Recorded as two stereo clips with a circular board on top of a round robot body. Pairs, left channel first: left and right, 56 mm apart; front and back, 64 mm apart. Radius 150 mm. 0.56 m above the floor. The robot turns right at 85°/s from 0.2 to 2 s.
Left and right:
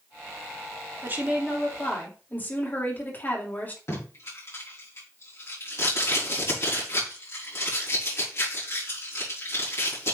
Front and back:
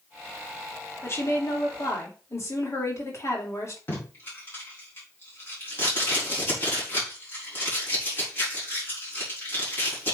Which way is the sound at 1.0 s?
45° right.